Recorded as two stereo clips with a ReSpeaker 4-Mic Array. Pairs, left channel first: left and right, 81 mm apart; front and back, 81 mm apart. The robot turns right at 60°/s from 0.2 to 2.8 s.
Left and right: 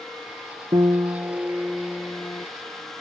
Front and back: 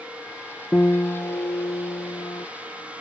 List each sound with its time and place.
0.7 s a piano: 70° right; by 2.5 s 35° left